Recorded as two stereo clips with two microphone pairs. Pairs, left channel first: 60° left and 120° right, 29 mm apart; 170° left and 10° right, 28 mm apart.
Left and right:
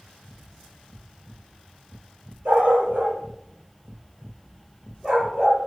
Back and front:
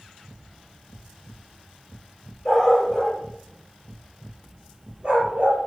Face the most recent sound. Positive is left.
turn(degrees=-50)